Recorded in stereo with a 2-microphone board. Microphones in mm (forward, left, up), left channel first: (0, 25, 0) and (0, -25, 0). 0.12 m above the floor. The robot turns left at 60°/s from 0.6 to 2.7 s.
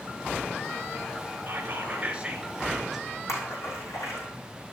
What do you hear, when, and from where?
1.5 s whispering: 100° right, 1.8 m; by 3.1 s 175° right, 1.8 m
3.3 s a splash: 75° left (ahead or behind), 4.5 m